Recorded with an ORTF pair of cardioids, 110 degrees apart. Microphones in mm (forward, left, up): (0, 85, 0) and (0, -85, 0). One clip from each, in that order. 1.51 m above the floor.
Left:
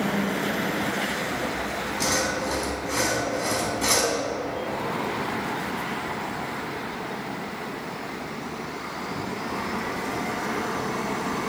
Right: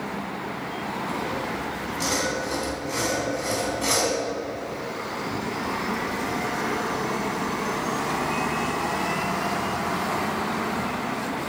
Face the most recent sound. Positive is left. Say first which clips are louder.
# left 1 dB
turn(degrees=15)